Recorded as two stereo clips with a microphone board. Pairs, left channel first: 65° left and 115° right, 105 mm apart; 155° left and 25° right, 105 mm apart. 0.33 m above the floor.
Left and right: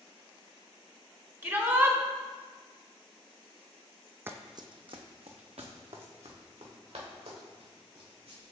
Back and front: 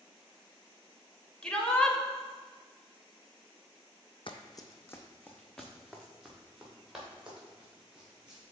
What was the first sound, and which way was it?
A shout, 135° right.